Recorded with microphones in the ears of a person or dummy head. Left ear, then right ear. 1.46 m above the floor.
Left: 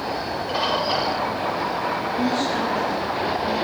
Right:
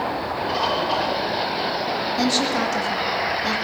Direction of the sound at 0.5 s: Centre (ahead or behind).